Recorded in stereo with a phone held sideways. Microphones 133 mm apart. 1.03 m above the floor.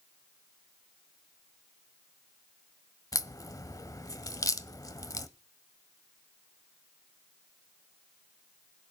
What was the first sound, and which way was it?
A crack, 25° left (ahead or behind).